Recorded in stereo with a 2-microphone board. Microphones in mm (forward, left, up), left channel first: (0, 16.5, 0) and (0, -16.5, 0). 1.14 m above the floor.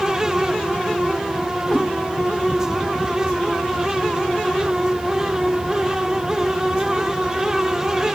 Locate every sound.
1.7 s a cat meowing: 40° left (ahead or behind), 1.6 m